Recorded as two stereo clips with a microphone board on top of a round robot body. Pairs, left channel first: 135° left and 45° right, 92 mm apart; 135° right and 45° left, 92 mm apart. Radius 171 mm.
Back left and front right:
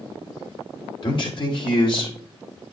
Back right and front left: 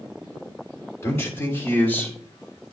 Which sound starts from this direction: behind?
A man speaking, at 1.0 s.